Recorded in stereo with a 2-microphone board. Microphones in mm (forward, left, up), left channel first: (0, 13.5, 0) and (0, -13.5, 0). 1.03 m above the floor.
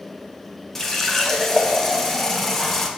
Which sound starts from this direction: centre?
A running tap, at 0.8 s.